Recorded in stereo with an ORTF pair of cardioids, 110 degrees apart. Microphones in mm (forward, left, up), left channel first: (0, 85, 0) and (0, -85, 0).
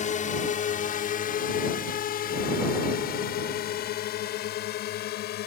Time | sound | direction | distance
0.0 | a drone | 50° left | ?